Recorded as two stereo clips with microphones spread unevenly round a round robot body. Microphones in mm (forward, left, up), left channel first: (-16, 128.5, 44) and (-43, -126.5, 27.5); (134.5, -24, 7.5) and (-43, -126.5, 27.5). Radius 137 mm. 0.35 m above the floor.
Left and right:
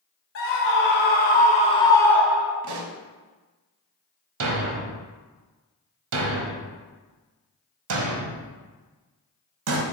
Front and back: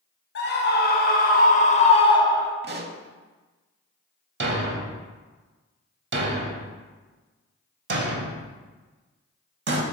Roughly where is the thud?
Behind right.